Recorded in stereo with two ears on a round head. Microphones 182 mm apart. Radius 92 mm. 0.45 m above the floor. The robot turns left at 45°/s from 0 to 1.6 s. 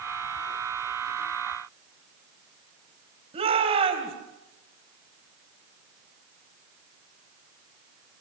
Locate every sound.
3.3 s a shout: 30° right (ahead or behind), 3 m